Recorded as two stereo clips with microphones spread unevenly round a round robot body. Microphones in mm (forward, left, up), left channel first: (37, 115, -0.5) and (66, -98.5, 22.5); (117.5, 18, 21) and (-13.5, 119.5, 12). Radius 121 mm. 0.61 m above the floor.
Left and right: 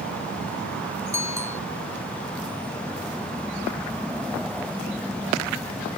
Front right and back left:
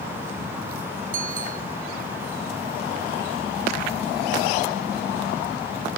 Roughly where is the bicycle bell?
Behind.